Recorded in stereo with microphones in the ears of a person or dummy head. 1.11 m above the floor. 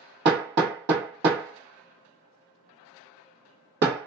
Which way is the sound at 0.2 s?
55° right (ahead or behind).